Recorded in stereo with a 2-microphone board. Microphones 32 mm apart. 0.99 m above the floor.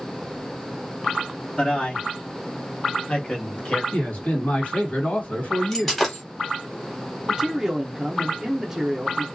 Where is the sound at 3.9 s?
50° left (ahead or behind), 1.4 m.